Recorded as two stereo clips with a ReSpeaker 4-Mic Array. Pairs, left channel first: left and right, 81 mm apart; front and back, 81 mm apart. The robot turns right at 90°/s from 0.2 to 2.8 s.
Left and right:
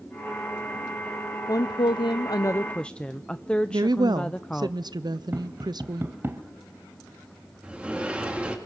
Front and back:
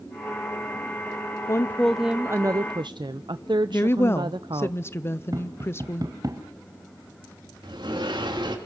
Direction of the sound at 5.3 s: 150° right.